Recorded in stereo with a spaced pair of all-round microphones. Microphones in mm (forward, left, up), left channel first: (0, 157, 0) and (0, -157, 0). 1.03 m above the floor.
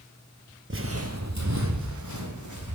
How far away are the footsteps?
About 1.3 m.